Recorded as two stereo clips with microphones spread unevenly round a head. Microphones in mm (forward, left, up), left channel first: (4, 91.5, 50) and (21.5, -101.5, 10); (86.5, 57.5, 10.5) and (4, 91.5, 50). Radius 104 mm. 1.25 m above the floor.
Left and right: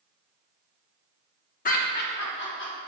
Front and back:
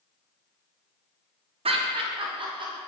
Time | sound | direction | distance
1.6 | laughter | 145° left | 1.0 m